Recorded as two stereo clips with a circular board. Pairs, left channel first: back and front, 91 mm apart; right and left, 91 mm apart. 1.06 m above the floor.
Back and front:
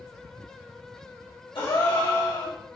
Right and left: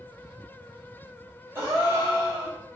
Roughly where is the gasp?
Behind left.